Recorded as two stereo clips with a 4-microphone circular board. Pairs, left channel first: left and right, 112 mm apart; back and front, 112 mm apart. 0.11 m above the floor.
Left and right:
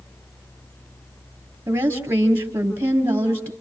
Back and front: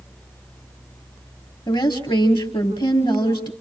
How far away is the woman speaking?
About 2.5 m.